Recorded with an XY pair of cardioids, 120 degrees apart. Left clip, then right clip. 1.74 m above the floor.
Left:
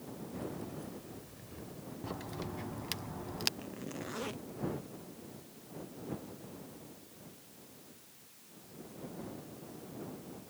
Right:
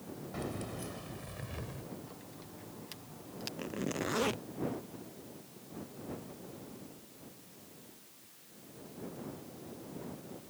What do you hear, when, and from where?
0.3 s keys jangling: 65° right; by 1.8 s 60° right
2.0 s a crack: 60° left
3.6 s a zipper: 40° right